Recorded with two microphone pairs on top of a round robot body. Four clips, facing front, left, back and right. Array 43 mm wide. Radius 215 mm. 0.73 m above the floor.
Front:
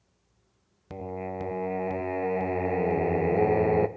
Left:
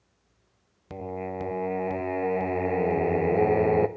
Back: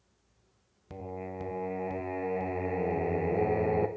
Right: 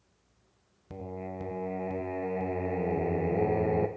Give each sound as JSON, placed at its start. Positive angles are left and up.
{"t": 0.9, "sound": "singing", "azimuth_deg": 50, "distance_m": 0.8}